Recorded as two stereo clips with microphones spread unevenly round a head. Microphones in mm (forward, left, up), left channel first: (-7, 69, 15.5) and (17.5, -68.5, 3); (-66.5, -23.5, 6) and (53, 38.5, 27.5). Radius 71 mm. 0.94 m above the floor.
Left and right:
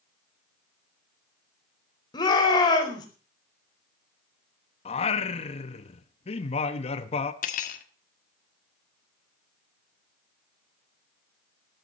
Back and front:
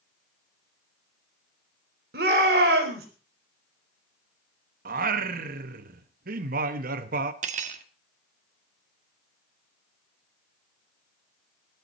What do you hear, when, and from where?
2.1 s a shout: 40° left, 4.5 m
4.8 s singing: 50° left, 1.0 m
7.4 s cutlery clinking: 60° left, 1.2 m